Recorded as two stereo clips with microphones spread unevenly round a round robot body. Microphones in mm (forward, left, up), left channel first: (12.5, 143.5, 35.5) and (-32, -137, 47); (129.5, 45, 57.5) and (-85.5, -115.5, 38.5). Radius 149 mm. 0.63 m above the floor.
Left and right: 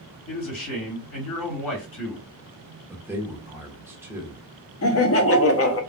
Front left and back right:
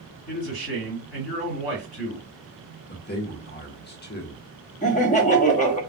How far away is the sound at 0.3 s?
About 3 m.